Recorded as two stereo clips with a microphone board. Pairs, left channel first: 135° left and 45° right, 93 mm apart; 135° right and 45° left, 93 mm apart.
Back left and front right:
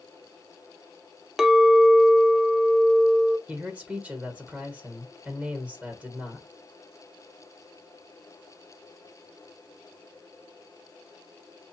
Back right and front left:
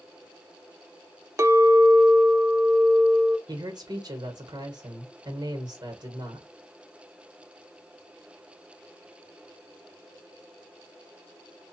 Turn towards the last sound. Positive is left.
turn(degrees=30)